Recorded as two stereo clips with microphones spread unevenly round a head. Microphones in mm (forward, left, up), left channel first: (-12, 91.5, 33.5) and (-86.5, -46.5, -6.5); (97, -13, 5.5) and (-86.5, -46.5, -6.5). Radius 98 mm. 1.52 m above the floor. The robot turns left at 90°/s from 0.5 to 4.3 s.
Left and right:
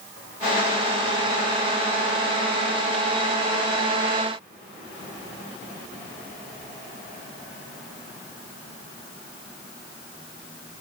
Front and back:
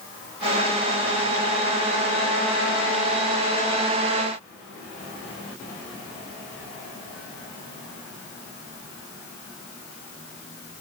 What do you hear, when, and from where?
Only background noise.